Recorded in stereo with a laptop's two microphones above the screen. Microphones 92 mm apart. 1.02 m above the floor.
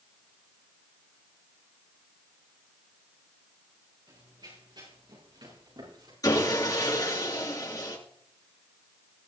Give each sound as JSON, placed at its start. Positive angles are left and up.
{"t": 4.1, "sound": "running footsteps", "side_deg": -50, "distance_m": 5.5}
{"t": 6.2, "sound": "sawing", "side_deg": 40, "distance_m": 6.5}